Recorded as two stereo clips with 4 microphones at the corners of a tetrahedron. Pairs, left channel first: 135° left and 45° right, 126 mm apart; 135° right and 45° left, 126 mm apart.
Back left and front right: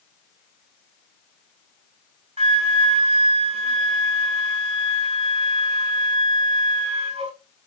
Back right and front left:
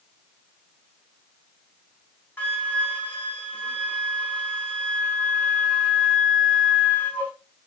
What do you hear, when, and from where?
2.4 s a flute: 60° right, 2.5 m